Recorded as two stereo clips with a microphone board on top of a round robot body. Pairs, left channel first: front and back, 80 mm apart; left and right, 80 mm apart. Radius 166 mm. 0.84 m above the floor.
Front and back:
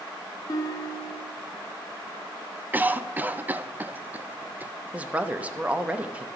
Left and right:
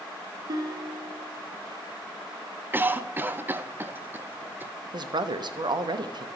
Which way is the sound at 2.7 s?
130° right.